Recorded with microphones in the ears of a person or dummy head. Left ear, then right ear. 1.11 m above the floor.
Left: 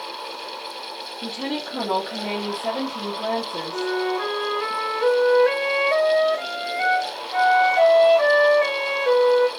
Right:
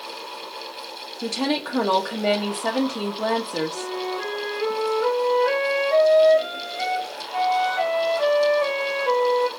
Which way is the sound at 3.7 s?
45° left (ahead or behind).